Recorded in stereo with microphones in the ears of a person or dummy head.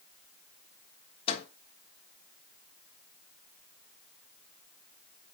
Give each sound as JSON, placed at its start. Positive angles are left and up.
{"t": 1.3, "sound": "a microwave", "side_deg": 40, "distance_m": 1.3}